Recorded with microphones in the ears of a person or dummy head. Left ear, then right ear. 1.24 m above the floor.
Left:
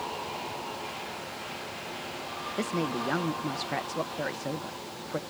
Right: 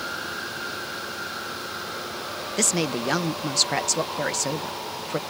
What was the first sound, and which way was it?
A woman speaking, 85° right.